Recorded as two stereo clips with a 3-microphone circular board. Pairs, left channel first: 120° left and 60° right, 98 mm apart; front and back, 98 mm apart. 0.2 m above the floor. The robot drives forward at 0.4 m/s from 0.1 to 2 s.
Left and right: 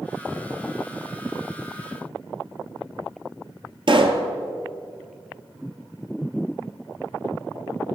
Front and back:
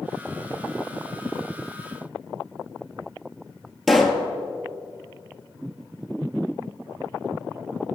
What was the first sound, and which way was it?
A pop, 90° right.